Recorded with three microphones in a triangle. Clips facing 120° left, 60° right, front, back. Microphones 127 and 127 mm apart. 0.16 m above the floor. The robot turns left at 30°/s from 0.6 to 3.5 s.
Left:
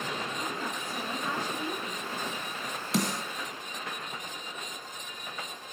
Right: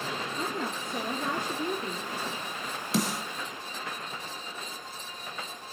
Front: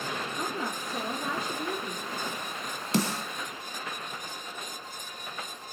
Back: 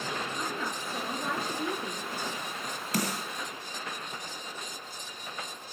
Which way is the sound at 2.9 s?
30° left.